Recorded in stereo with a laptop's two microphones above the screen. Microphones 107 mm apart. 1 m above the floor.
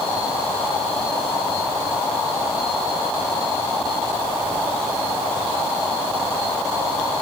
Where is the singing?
No singing in this recording.